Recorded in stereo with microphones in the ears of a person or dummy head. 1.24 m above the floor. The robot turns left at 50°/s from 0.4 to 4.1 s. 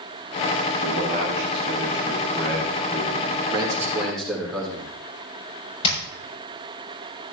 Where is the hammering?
35° left (ahead or behind), 6.5 m.